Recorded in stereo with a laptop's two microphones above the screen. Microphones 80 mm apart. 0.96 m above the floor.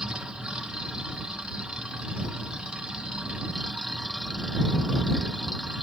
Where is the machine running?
10° right (ahead or behind).